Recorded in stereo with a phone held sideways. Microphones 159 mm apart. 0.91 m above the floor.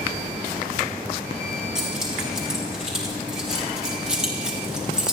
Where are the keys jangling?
5° right (ahead or behind), 6.5 m.